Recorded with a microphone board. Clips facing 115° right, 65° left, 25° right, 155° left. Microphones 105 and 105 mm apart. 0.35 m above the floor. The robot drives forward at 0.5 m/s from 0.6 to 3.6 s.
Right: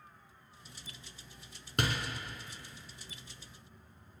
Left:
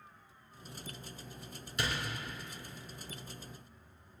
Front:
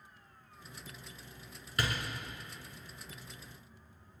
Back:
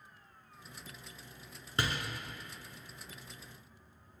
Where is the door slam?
140° right, 2.5 m.